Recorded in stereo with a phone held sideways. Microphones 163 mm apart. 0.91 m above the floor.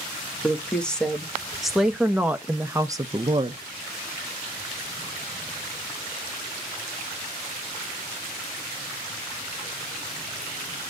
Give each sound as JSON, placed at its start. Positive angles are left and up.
{"t": 0.4, "sound": "a woman speaking", "side_deg": 5, "distance_m": 1.7}